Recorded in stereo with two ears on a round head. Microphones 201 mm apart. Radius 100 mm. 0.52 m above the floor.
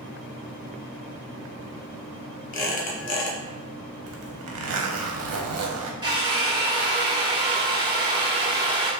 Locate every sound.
2.5 s a squeak: 35° left (ahead or behind), 1.0 m
4.1 s a zipper: 70° right (ahead or behind), 0.7 m
6.0 s a drill: 20° right (ahead or behind), 0.6 m